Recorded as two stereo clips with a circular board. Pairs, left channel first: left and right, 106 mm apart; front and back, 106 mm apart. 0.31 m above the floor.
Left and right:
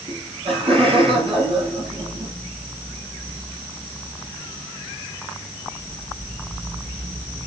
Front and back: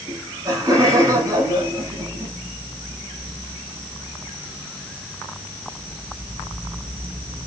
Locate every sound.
0.1 s laughter: 125° right, 10 m